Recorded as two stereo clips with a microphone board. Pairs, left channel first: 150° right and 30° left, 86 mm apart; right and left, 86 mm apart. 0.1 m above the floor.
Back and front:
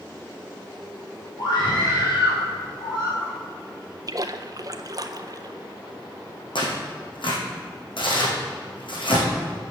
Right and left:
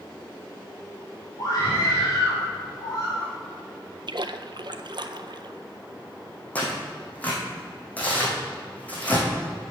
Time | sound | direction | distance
1.4 | a scream | 130° right | 3 m
4.1 | a splash | 70° left | 0.5 m
6.5 | tearing paper | 160° right | 2.5 m